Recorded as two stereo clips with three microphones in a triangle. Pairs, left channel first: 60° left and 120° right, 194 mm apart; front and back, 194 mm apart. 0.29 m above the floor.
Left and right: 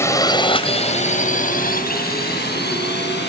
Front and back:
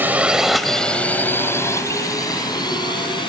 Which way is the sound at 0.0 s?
115° left.